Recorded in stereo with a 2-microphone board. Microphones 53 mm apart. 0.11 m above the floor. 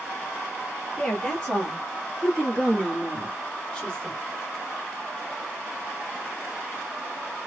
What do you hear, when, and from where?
1.0 s a woman speaking: 20° left (ahead or behind), 3 m; by 4.2 s 15° left (ahead or behind), 1.8 m